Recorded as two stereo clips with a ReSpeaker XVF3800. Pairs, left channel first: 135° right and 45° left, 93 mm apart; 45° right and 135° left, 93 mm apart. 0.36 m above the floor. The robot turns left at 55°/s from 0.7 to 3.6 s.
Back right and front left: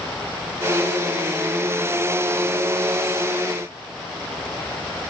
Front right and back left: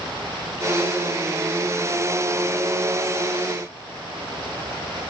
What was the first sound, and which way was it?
Only background noise.